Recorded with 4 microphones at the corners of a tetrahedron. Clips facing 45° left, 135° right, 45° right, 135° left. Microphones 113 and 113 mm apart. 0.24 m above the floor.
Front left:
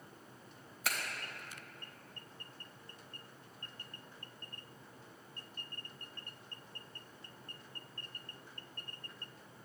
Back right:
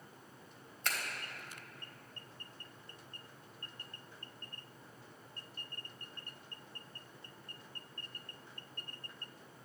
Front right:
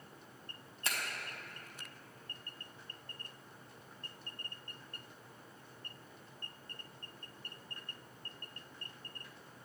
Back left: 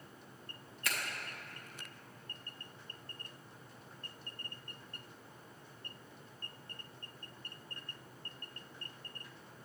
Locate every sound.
0.8 s a finger snap: 30° right, 1.1 m